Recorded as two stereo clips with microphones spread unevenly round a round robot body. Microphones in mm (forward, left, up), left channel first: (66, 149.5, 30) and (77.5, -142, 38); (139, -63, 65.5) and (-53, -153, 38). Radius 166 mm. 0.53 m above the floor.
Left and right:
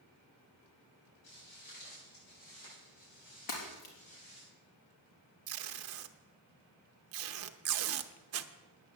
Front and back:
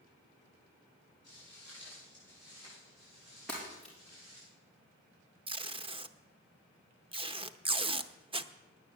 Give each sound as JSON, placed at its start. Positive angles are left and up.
{"t": 1.2, "sound": "footsteps", "azimuth_deg": 115, "distance_m": 7.5}
{"t": 3.5, "sound": "breaking glass", "azimuth_deg": 115, "distance_m": 3.5}
{"t": 5.5, "sound": "tape being pulled", "azimuth_deg": -105, "distance_m": 0.7}